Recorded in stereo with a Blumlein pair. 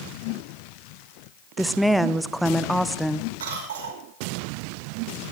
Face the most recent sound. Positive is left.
turn(degrees=-60)